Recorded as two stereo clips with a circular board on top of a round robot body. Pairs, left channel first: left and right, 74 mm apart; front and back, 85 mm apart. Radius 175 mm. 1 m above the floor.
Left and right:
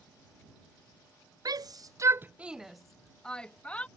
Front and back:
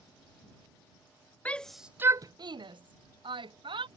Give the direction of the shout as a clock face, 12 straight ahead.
2 o'clock.